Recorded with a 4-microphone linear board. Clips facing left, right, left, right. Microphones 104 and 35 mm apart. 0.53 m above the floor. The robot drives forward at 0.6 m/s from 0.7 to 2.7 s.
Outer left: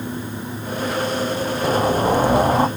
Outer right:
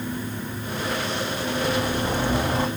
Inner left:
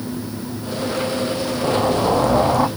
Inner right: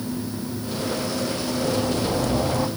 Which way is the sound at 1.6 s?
45° left (ahead or behind).